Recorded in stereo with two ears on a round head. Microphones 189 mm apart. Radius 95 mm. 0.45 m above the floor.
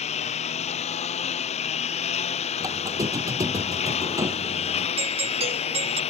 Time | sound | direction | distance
0.0 | a lawn mower | 35° left (ahead or behind) | ?
2.6 | a squeak | 15° right (ahead or behind) | ?
5.0 | a doorbell | 30° right (ahead or behind) | ?